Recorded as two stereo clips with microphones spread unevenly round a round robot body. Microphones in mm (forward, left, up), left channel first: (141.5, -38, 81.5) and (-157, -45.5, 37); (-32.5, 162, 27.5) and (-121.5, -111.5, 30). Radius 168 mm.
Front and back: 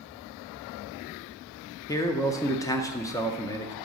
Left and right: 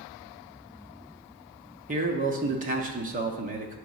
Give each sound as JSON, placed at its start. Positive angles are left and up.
{"t": 1.9, "sound": "a man speaking", "azimuth_deg": -85, "distance_m": 0.6}